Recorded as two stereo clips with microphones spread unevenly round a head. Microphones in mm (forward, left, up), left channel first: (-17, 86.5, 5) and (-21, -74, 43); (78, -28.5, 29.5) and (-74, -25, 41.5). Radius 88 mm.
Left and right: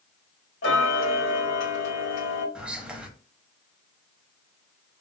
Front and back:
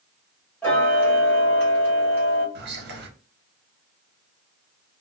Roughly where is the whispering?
Behind.